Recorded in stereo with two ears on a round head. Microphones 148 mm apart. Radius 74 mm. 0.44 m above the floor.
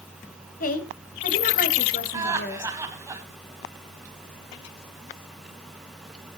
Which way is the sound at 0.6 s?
55° left (ahead or behind).